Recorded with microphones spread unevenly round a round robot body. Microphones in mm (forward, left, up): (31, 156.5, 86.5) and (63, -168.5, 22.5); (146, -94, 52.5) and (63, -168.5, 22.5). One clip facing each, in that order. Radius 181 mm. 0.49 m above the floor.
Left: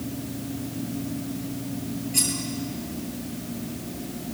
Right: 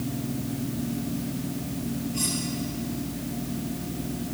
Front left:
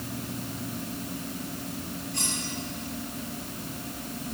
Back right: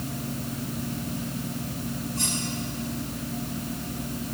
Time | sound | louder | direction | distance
2.1 | cutlery clinking | even, back right 3 dB | 85° left | 7 m